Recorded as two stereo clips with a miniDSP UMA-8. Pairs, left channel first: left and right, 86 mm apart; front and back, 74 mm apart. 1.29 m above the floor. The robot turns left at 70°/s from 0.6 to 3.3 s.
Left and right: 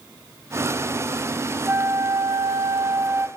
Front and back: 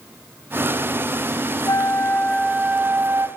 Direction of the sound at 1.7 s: 25° right.